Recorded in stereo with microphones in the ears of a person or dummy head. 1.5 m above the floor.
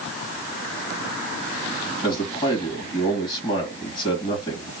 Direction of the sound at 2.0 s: 30° left (ahead or behind).